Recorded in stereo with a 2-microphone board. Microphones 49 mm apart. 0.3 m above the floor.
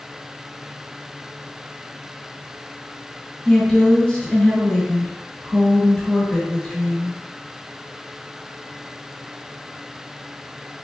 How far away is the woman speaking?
About 1.1 m.